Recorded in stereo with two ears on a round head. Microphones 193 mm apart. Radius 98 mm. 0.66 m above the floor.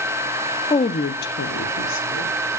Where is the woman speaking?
15° left (ahead or behind), 0.5 m; by 2.3 s 65° left (ahead or behind), 1.4 m.